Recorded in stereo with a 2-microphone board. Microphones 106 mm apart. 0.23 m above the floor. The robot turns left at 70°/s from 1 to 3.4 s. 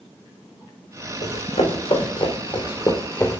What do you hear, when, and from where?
1.2 s running footsteps: 85° left, 1.9 m; by 3.4 s 20° left (ahead or behind), 1.1 m